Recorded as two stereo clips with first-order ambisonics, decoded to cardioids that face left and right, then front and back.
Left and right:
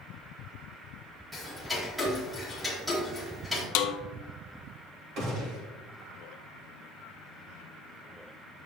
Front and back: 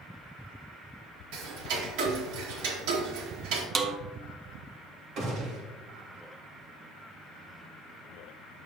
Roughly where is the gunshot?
Behind right.